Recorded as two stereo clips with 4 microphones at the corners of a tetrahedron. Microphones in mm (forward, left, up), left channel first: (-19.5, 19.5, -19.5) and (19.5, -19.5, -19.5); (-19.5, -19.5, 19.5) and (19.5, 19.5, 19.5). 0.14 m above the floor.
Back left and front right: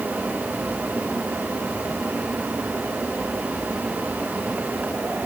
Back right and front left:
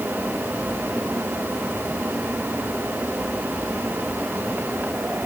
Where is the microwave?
No microwave in this recording.